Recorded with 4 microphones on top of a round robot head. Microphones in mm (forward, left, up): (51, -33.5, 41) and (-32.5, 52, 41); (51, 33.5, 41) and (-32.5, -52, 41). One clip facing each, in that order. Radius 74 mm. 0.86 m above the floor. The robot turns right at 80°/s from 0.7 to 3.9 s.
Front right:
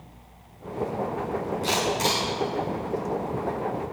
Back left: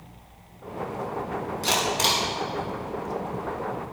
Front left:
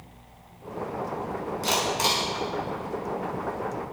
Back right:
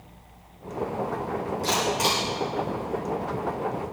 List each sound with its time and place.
1.6 s a camera shutter: 80° left, 6 m; by 2.2 s 130° left, 6 m